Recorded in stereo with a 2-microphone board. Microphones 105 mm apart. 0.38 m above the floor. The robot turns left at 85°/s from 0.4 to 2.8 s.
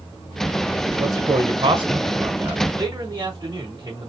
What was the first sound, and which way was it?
A man speaking, 25° right (ahead or behind).